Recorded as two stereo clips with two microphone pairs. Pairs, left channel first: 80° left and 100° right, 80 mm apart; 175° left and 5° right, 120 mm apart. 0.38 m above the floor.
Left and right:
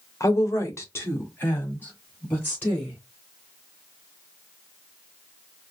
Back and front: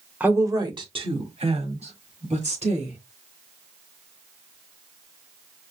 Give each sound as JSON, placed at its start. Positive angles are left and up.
{"t": 0.2, "sound": "a woman speaking", "azimuth_deg": 65, "distance_m": 1.0}